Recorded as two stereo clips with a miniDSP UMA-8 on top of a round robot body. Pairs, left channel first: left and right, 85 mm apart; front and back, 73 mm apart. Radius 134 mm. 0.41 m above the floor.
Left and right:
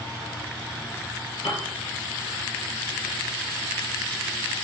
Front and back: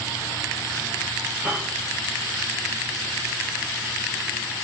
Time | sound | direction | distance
1.4 | a piano | 110° left | 2.5 m